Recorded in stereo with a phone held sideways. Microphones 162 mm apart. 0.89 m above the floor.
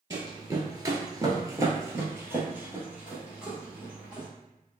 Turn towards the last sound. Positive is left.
turn(degrees=-5)  # may be behind; listen again after turning